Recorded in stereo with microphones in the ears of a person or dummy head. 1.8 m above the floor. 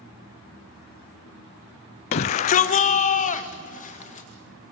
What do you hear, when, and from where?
2.1 s a shout: 35° left (ahead or behind), 0.5 m; by 4.3 s 40° left (ahead or behind), 2.5 m